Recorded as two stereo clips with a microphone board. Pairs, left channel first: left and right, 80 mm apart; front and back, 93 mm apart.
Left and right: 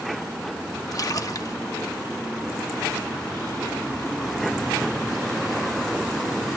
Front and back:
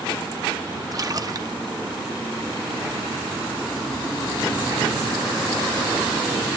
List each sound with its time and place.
0.9 s a splash: 135° left, 0.8 m